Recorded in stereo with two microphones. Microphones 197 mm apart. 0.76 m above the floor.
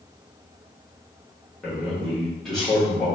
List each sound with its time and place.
1.6 s a man speaking: centre (ahead or behind), 1.1 m